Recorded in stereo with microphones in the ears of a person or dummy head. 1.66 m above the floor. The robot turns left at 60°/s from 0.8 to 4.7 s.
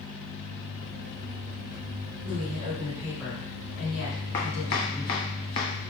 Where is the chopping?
10° left (ahead or behind), 0.5 m; by 5.7 s 15° left (ahead or behind), 0.5 m.